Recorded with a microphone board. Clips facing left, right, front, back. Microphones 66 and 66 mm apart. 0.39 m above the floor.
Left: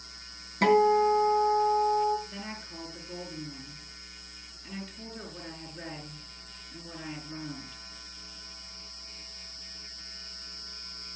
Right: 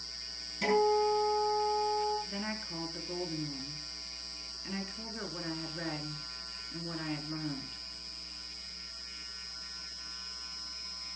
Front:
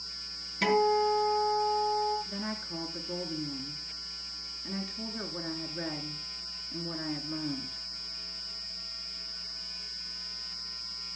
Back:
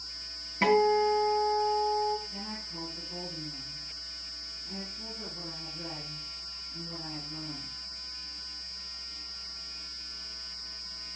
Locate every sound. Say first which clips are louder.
0.6 s a guitar: left 6 dB, back 2 dB; 120° left, 4 m
2.3 s a woman speaking: right 2 dB, front 5 dB; 20° right, 4 m